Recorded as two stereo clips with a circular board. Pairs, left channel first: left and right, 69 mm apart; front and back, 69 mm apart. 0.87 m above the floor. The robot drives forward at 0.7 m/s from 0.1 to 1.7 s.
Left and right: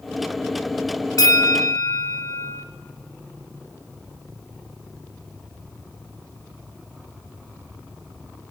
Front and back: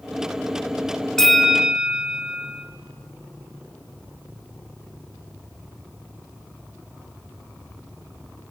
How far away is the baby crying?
I don't hear a baby crying.